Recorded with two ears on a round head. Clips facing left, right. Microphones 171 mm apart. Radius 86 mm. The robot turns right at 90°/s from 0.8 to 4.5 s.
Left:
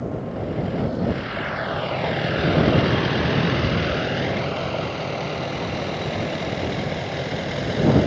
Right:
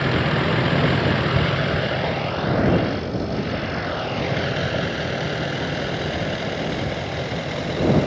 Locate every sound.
0.0 s a vehicle: 90° right; by 8.1 s 5° left (ahead or behind)